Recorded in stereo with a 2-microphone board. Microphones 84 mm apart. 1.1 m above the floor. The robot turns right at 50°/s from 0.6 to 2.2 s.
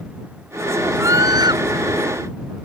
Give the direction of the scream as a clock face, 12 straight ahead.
5 o'clock.